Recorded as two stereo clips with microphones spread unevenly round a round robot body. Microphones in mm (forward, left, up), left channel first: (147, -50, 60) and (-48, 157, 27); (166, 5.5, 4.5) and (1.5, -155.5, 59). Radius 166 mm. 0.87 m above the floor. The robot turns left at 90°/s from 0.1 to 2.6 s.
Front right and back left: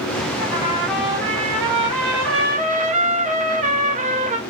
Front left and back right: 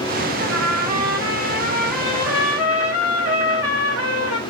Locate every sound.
0.4 s a trumpet: 90° right, 0.8 m; by 4.4 s 70° left, 0.8 m